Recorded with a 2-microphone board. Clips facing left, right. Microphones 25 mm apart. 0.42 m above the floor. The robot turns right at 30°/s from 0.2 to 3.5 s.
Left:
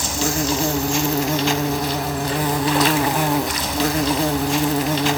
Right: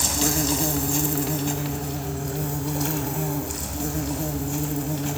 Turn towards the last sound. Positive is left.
turn(degrees=110)